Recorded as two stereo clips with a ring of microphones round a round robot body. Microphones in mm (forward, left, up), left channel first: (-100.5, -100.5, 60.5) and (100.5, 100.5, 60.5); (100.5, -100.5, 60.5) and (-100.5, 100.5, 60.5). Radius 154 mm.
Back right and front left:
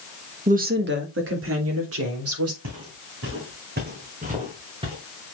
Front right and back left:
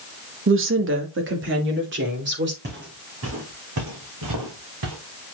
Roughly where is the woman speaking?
Left.